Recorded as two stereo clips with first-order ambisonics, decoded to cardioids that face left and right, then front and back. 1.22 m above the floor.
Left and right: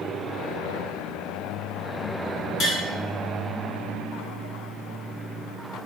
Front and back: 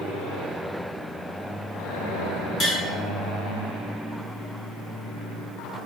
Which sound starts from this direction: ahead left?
Tapping, at 2.6 s.